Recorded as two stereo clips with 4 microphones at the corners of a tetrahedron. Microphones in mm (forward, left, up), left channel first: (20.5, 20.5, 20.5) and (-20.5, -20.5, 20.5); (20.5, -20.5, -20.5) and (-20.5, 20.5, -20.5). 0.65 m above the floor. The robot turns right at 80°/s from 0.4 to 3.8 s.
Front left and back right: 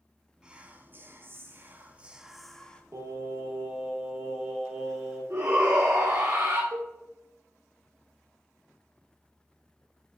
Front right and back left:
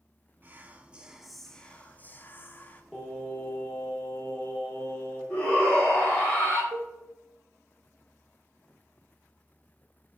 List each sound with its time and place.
0.4 s whispering: 155° left, 0.7 m; by 2.8 s 10° right, 0.7 m
2.9 s singing: 130° right, 1.6 m; by 5.2 s 55° right, 1.6 m
5.3 s a shout: 105° right, 2 m
6.7 s a cowbell: 175° right, 0.8 m